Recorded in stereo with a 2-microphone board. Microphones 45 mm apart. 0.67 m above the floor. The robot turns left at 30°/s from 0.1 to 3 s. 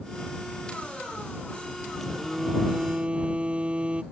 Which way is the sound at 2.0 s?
5° left.